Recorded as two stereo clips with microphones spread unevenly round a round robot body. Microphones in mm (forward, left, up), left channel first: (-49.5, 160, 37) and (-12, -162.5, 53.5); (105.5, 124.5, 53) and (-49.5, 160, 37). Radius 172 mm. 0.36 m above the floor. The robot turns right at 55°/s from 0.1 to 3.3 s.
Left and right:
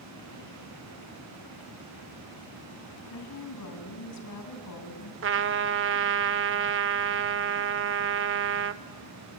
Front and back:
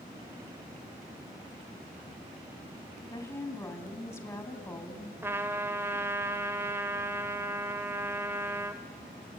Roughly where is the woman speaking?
Ahead left.